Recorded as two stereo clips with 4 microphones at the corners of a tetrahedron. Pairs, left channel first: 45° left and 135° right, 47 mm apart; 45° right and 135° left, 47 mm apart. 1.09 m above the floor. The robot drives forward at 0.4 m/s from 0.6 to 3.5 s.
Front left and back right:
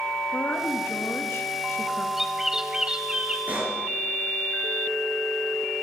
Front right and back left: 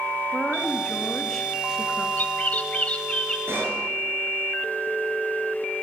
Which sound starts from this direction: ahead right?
A bird, at 2.2 s.